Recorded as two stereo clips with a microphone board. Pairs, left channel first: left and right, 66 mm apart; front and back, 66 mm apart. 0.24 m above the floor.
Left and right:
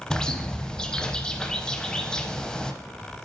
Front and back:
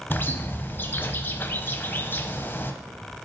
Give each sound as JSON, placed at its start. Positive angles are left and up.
{"t": 0.1, "sound": "a bird", "azimuth_deg": 15, "distance_m": 0.6}